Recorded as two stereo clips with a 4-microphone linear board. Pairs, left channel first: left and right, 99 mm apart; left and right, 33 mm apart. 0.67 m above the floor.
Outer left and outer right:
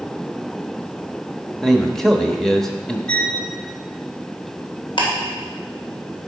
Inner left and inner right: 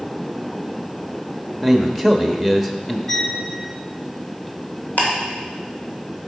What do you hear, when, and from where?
1.6 s a man speaking: 5° left (ahead or behind), 0.9 m
3.1 s a violin: 10° left (ahead or behind), 0.9 m
5.0 s ticking: 55° left (ahead or behind), 2.5 m